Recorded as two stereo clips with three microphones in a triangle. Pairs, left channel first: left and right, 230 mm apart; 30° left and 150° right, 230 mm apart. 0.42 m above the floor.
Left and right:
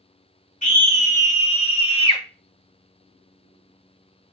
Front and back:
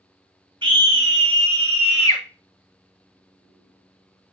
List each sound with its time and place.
0.6 s a scream: 145° left, 1.9 m; by 2.2 s 155° left, 1.3 m